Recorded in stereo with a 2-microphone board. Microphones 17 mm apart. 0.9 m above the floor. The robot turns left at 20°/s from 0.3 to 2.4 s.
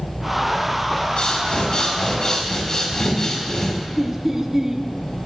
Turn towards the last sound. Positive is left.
turn(degrees=-30)  # may be behind; listen again after turning